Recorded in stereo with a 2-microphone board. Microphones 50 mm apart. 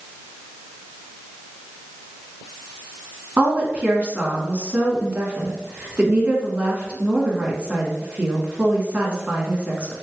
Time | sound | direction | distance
3.4 | a woman speaking | 25° right (ahead or behind) | 1.2 m